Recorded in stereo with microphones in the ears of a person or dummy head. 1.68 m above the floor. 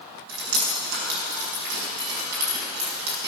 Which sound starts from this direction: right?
Dripping, at 0.3 s.